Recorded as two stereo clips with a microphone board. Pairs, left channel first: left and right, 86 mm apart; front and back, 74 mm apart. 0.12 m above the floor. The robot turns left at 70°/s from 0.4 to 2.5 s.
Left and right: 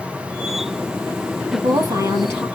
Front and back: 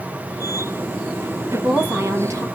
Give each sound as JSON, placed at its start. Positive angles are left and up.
{"t": 1.5, "sound": "a woman speaking", "azimuth_deg": -90, "distance_m": 2.0}